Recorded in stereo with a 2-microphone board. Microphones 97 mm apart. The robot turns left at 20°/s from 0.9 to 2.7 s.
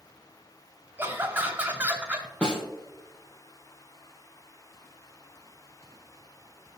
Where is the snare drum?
15° left (ahead or behind), 2.5 m; by 2.6 s 10° left (ahead or behind), 2.5 m.